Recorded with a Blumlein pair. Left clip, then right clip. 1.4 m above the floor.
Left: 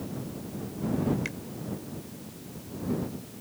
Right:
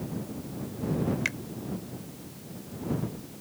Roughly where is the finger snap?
Right.